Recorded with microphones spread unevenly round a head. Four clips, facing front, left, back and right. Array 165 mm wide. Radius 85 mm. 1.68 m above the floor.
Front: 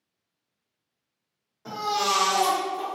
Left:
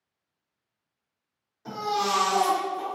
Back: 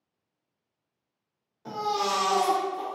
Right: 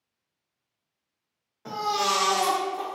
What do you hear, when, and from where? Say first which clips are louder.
1.6 s a baby crying: right 1 dB, front 1 dB; 85° right, 0.9 m